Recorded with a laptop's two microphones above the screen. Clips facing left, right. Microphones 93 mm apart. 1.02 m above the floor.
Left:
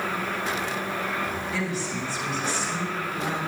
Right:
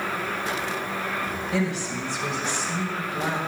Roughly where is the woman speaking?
Right.